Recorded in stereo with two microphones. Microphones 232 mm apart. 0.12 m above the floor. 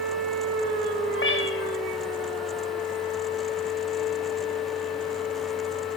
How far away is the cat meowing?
About 2 m.